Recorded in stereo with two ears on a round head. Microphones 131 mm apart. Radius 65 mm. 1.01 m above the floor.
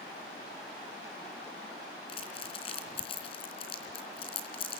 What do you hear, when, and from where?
2.1 s crumpling: 40° left (ahead or behind), 3 m